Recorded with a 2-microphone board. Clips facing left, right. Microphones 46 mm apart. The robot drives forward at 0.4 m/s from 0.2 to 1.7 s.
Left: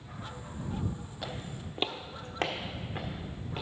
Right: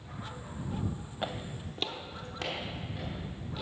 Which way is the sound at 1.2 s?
35° right (ahead or behind).